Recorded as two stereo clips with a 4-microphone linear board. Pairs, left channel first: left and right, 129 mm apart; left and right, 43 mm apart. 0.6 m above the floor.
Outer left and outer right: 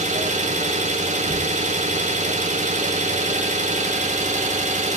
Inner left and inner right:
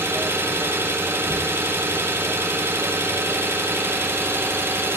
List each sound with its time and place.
0.0 s an engine running: 65° right (ahead or behind), 0.9 m